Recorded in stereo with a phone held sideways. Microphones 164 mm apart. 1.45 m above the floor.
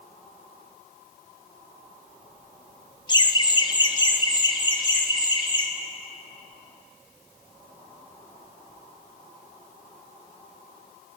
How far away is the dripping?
I don't hear dripping.